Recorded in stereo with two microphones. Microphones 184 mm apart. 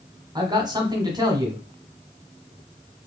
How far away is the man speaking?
About 1.0 m.